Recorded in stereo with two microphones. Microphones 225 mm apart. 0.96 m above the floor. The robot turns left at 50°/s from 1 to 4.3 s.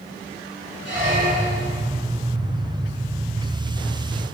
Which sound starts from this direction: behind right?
A squeak, at 0.8 s.